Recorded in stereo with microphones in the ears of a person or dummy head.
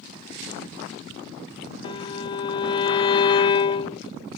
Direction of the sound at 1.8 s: 30° left (ahead or behind).